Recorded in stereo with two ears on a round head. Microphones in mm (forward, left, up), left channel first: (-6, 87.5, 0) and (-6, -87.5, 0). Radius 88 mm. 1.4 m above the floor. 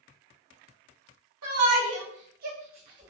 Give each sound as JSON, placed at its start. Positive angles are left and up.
{"t": 1.4, "sound": "a shout", "side_deg": -85, "distance_m": 0.9}